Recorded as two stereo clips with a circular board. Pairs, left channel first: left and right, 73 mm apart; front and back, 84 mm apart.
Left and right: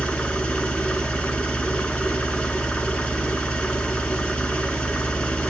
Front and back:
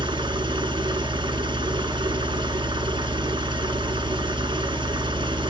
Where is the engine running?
165° left, 1.4 m.